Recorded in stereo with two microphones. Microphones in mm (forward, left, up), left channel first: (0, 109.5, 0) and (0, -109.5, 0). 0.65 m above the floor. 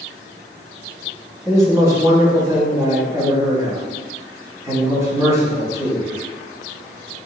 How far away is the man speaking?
About 1.2 m.